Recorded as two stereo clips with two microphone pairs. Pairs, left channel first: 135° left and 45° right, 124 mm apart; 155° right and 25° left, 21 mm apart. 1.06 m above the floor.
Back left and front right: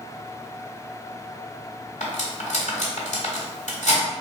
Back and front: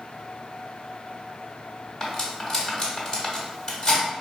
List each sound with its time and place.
2.0 s cutlery clinking: 145° left, 1.7 m